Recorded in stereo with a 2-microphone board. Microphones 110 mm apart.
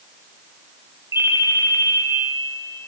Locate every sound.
1.1 s a ringtone: 25° right (ahead or behind), 1.2 m